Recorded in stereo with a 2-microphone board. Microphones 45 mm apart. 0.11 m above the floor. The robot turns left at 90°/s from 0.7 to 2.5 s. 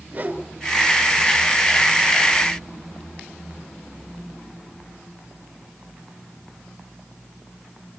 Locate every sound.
0.1 s a whoosh: 35° right (ahead or behind), 1.6 m